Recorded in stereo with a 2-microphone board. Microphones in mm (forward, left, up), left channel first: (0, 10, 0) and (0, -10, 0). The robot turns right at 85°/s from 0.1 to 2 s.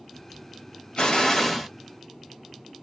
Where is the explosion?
125° left, 1.1 m; by 1.7 s 175° right, 1.1 m.